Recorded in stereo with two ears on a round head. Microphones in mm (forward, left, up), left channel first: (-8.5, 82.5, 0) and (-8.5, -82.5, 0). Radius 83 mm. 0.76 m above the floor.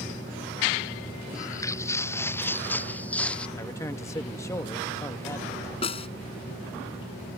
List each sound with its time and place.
1.3 s footsteps: 20° left (ahead or behind); by 3.5 s 5° left (ahead or behind)
3.6 s a man speaking: 15° left (ahead or behind)
5.8 s a snare drum: 30° left (ahead or behind)